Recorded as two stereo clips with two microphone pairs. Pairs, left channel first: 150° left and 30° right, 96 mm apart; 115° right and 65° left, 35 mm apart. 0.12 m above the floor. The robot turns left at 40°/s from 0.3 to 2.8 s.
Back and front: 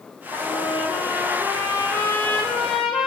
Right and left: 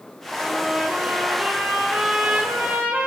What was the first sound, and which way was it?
A trumpet, 150° left.